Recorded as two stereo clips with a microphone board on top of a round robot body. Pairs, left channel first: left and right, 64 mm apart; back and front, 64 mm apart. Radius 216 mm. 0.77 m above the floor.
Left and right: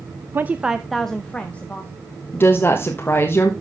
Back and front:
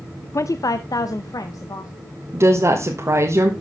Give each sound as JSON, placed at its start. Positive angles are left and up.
{"t": 0.3, "sound": "a woman speaking", "azimuth_deg": -145, "distance_m": 0.6}
{"t": 2.3, "sound": "a woman speaking", "azimuth_deg": 35, "distance_m": 1.5}